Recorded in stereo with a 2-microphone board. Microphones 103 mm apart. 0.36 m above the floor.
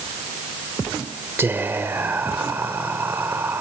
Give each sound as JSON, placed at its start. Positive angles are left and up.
{"t": 1.4, "sound": "whispering", "side_deg": -20, "distance_m": 1.0}